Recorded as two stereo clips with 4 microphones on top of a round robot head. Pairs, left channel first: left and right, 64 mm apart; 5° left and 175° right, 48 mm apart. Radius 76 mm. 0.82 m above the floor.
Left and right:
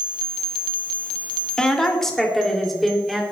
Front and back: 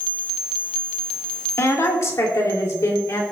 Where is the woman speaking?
10° left, 3 m; by 3.2 s straight ahead, 3.5 m.